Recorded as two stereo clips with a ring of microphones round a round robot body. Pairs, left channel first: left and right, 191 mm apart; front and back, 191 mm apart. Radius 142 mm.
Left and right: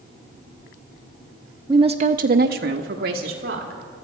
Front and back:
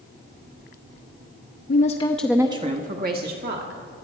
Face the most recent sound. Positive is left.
turn(degrees=-140)